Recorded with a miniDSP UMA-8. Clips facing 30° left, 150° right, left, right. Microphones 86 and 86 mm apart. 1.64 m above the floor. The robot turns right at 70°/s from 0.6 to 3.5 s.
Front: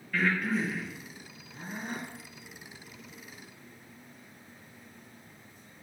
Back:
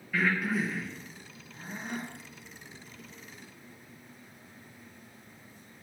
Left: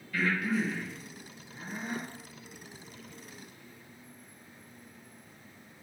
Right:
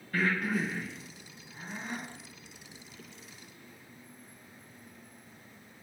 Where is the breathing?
65° right, 0.9 m; by 2.1 s 35° left, 0.9 m.